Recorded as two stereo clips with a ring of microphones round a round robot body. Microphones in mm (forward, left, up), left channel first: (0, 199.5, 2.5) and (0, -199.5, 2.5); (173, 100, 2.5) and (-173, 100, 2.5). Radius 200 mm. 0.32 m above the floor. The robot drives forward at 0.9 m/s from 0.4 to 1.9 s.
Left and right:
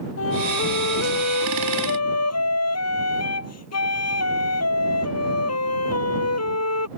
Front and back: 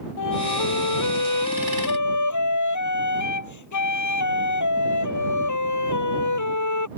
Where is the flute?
30° left; by 6.9 s 35° left.